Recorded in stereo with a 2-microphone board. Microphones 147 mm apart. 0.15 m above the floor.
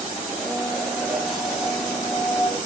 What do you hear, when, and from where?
0.3 s a blender: centre (ahead or behind), 3 m